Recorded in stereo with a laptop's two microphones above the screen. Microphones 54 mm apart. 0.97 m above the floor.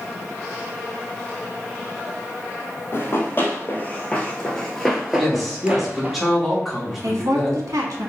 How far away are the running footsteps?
About 1.5 m.